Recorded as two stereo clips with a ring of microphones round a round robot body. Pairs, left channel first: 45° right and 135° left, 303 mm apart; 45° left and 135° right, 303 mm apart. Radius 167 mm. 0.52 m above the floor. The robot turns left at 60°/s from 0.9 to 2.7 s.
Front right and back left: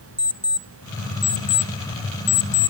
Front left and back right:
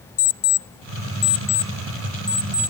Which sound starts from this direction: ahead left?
An alarm clock, at 0.2 s.